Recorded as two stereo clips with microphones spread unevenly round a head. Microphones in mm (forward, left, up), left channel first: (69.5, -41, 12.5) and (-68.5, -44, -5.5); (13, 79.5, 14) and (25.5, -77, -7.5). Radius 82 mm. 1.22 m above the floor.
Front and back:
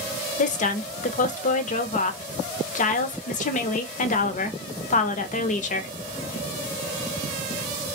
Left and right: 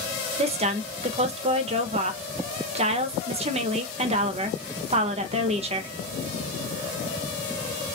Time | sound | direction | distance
0.4 | a woman speaking | 35° right | 0.7 m